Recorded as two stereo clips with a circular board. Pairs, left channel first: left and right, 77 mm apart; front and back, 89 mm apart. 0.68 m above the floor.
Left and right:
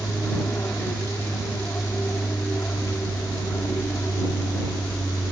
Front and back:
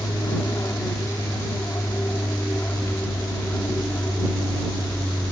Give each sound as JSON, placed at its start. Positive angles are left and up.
{"t": 0.0, "sound": "an aircraft", "azimuth_deg": 40}